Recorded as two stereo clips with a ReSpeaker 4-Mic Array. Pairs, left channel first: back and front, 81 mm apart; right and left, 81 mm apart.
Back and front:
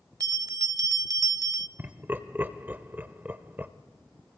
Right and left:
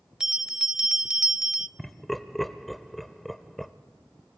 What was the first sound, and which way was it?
A bell, 10° left.